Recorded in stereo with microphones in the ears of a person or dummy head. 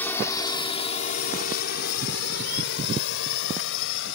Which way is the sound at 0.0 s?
10° left (ahead or behind).